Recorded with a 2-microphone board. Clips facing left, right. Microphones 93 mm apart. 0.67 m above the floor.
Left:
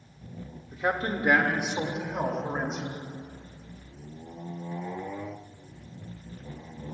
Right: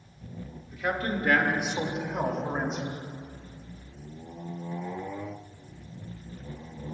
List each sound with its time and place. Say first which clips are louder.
0.7 s a man speaking: left 1 dB; 35° left (ahead or behind), 1.5 m; by 2.9 s 5° right (ahead or behind), 3 m